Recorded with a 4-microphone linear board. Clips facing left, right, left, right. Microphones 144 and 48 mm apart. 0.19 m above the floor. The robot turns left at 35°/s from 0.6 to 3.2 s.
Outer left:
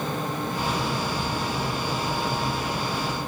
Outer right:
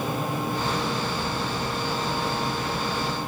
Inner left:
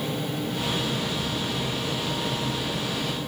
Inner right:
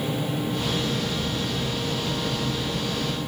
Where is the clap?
I don't hear a clap.